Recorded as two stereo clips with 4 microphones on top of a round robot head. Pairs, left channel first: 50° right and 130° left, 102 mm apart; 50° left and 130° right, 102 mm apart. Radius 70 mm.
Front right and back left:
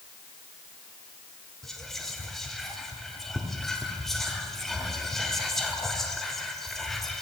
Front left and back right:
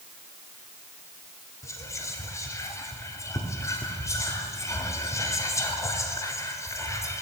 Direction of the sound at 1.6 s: 35° left.